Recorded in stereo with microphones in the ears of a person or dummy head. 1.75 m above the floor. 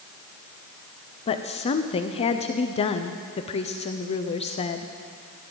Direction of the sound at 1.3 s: 35° left (ahead or behind).